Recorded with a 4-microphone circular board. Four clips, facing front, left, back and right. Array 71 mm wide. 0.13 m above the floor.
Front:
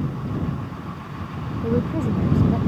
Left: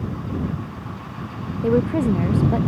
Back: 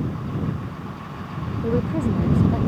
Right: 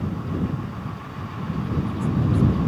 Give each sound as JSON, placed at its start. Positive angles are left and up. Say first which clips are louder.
{"t": 1.6, "sound": "a woman speaking", "louder": "left 11 dB, even", "azimuth_deg": 95}